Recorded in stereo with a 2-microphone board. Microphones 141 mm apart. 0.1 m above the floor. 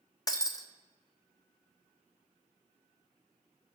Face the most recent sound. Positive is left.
turn(degrees=25)  # may be behind; listen again after turning